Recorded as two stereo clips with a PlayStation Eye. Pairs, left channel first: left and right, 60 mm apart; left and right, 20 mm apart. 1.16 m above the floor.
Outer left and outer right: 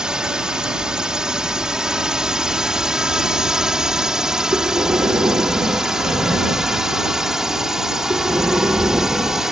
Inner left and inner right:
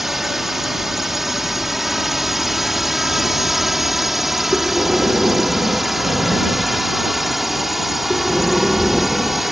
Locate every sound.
0.0 s a drone: 15° right (ahead or behind); by 9.5 s 10° right (ahead or behind)
4.5 s breathing: 75° right (ahead or behind)